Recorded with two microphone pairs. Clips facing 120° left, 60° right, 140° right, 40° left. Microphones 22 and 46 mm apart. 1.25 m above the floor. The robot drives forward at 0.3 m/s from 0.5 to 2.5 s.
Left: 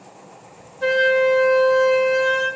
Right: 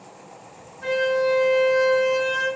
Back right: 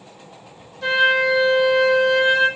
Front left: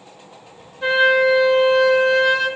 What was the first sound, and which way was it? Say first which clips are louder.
A flute: left 5 dB, front left 2 dB; 110° left.